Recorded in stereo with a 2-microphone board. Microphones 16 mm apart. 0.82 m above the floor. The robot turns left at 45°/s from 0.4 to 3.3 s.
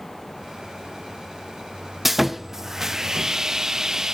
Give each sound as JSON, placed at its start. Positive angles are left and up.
{"t": 2.0, "sound": "sawing", "azimuth_deg": -10, "distance_m": 0.5}